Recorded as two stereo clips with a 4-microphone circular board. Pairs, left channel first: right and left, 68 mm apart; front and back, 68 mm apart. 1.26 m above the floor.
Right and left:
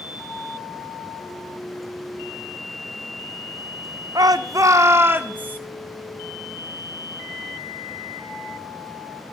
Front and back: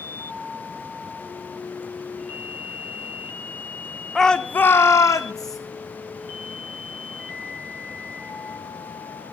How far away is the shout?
About 0.7 m.